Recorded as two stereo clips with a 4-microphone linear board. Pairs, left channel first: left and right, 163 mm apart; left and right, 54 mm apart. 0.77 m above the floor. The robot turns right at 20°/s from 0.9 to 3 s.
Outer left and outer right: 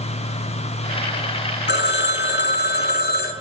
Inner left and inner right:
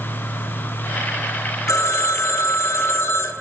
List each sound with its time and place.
1.7 s a phone ringing: 85° left, 0.6 m; by 3.3 s 65° left (ahead or behind), 0.6 m